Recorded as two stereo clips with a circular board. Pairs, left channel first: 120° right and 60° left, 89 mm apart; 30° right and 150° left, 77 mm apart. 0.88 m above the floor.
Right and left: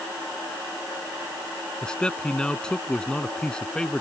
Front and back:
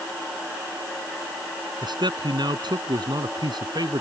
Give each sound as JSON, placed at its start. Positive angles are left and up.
{"t": 1.8, "sound": "a man speaking", "azimuth_deg": 160}